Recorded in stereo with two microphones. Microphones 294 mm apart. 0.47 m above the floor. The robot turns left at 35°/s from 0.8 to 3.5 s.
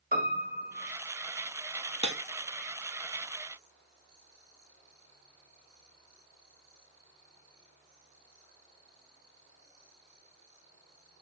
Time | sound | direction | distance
0.1 | a piano | 30° right (ahead or behind) | 1.8 m
2.0 | breaking glass | 70° left (ahead or behind) | 1.4 m